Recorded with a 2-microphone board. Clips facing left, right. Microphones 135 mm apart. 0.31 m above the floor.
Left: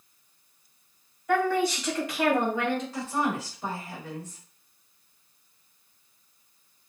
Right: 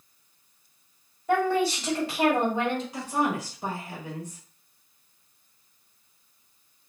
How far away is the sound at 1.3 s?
About 1.6 m.